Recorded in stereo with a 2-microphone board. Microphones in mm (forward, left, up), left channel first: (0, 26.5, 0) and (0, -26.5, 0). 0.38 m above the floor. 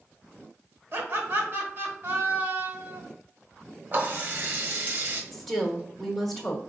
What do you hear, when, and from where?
0.9 s laughter: 45° right (ahead or behind), 1.6 m
3.9 s a running tap: 40° right (ahead or behind), 1.3 m
5.3 s a woman speaking: 5° right (ahead or behind), 1.3 m